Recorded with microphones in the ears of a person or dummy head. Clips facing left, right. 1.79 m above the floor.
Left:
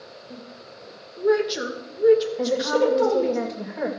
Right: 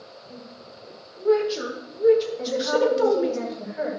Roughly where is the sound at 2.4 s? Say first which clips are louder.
Left 1 dB; left.